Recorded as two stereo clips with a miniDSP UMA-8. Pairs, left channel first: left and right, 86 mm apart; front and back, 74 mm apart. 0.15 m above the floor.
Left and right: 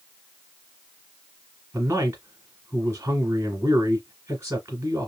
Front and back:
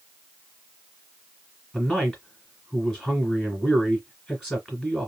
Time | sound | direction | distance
1.7 | a man speaking | 100° right | 1.5 m